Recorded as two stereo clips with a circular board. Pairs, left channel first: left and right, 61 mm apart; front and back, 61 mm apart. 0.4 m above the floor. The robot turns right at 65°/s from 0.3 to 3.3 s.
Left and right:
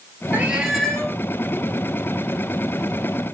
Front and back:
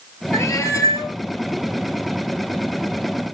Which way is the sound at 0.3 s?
30° right.